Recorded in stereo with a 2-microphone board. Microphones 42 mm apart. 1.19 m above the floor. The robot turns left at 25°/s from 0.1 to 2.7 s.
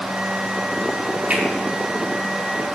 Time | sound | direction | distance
1.3 | a finger snap | 45° right (ahead or behind) | 3.5 m